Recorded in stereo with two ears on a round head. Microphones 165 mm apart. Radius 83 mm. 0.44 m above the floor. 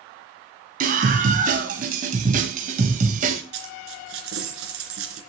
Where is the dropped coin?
85° right, 3 m.